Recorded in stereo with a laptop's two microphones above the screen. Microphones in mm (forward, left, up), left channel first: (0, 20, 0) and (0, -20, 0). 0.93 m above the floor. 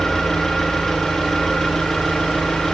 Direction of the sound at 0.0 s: 10° left (ahead or behind).